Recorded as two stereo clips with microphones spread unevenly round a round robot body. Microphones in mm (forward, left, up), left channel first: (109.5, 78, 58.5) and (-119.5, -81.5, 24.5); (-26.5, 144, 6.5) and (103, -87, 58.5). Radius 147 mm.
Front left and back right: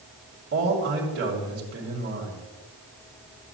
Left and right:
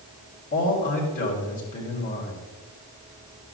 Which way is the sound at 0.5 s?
170° left.